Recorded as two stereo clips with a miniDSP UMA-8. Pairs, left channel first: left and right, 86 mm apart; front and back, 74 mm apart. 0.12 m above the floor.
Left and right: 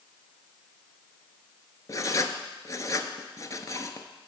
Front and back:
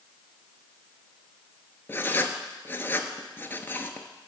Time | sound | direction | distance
1.9 | writing | 50° left | 0.7 m